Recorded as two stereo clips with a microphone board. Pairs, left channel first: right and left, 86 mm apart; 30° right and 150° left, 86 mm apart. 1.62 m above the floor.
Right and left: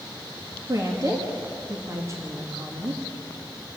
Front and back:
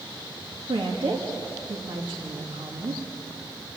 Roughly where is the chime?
I don't hear a chime.